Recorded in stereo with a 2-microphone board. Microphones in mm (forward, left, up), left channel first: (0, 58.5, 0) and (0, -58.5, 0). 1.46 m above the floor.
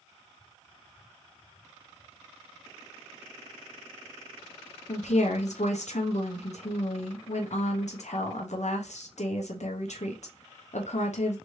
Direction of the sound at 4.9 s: 75° left (ahead or behind).